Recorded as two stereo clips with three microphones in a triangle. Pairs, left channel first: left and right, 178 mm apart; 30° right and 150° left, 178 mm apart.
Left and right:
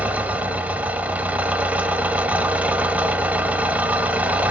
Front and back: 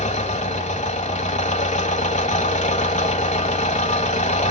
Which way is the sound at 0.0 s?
10° right.